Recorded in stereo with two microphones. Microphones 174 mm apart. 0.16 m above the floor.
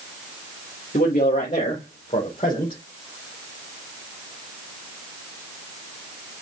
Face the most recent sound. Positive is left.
turn(degrees=35)  # may be behind; listen again after turning